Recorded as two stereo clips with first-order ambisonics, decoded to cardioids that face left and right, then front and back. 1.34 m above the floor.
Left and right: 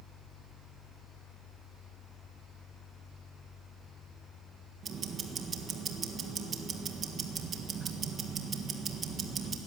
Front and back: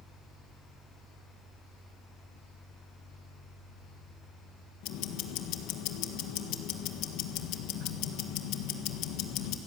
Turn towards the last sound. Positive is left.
turn(degrees=-25)